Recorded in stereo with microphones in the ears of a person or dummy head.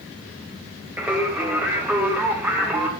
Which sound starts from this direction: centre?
Singing, at 1.0 s.